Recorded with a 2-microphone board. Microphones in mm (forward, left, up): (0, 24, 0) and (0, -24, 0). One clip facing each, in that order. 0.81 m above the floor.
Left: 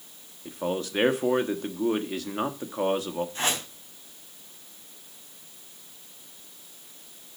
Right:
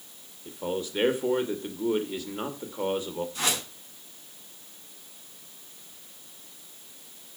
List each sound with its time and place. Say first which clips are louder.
0.5 s a man speaking: left 2 dB; 65° left (ahead or behind), 1.3 m
3.4 s a whoosh: right 1 dB; 35° left (ahead or behind), 4 m